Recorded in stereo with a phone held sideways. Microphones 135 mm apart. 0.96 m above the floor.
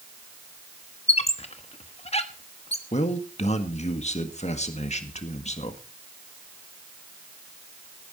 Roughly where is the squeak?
Left.